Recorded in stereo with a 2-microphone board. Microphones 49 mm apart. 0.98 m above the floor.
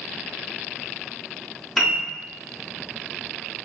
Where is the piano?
5° right (ahead or behind), 0.6 m.